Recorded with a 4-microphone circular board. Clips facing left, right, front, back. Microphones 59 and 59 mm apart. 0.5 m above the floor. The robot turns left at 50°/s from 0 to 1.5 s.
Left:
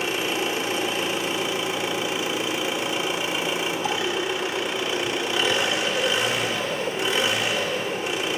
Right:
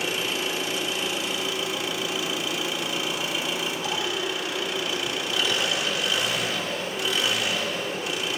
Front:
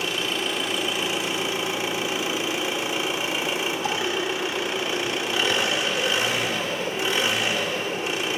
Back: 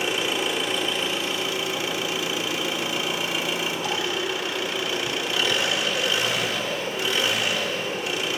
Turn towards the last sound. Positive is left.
turn(degrees=50)